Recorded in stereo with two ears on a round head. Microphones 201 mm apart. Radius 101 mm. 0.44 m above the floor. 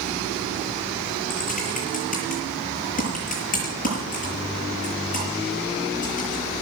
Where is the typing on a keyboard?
40° left (ahead or behind), 7 m.